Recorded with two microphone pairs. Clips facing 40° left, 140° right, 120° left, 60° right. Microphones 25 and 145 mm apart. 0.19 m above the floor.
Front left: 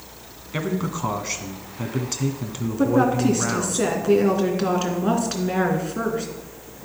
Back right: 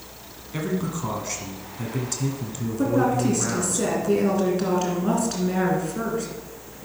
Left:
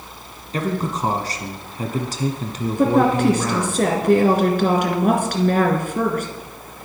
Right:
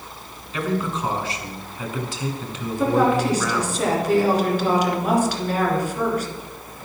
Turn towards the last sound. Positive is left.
turn(degrees=105)